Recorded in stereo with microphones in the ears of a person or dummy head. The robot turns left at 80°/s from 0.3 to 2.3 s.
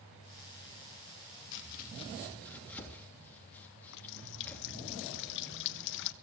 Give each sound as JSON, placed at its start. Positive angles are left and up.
{"t": 1.5, "sound": "chopping", "side_deg": 75, "distance_m": 3.0}
{"t": 3.9, "sound": "a running tap", "side_deg": 60, "distance_m": 1.1}